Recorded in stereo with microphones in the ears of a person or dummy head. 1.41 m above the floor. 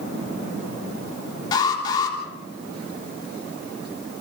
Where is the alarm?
20° left (ahead or behind), 4 m.